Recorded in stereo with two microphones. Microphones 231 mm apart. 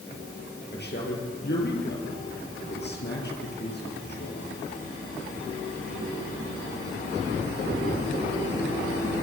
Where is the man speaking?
45° left (ahead or behind), 5 m.